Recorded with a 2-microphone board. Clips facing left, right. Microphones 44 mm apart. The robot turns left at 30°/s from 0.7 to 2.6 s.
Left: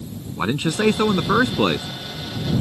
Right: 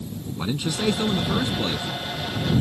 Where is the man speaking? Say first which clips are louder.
Left 6 dB; 130° left; by 1.9 s 95° left.